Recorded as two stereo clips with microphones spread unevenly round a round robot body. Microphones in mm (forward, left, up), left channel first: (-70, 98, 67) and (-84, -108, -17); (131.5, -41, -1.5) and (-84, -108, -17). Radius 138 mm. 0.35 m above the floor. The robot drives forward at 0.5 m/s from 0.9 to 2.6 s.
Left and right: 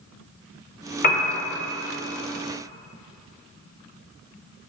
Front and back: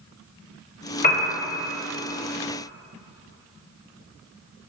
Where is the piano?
30° left, 1.1 m; by 1.3 s 35° left, 1.1 m.